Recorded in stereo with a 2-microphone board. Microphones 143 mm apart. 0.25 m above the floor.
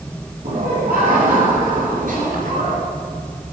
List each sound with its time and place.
0.4 s laughter: 80° right, 7 m; by 2.8 s 65° right (ahead or behind), 3.5 m